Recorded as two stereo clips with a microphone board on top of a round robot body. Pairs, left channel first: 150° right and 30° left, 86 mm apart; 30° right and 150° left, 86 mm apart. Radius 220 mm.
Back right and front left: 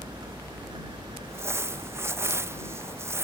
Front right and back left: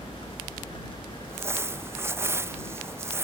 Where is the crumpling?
90° left.